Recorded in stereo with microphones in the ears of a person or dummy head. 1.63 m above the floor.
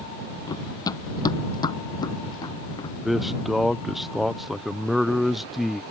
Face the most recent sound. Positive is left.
turn(degrees=-5)  # may be behind; listen again after turning